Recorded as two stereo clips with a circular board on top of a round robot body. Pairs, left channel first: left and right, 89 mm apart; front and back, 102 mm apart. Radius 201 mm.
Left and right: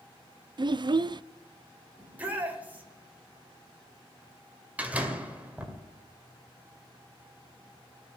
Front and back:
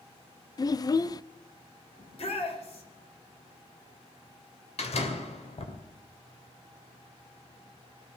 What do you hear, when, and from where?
0.6 s a child speaking: 55° right, 0.5 m
2.0 s a shout: 20° right, 3.5 m
4.8 s a door slam: 15° right, 2 m